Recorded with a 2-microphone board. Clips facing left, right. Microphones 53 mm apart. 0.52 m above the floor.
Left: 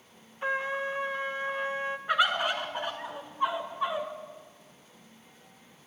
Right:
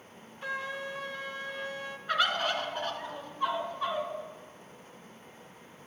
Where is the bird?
15° left (ahead or behind), 1.3 m.